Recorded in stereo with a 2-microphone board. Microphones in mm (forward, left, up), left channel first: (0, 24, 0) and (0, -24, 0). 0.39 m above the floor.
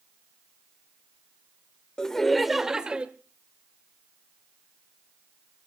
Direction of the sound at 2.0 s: 15° left (ahead or behind).